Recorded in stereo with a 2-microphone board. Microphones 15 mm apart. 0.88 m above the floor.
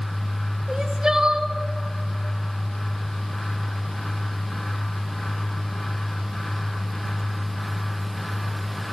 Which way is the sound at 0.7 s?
45° right (ahead or behind).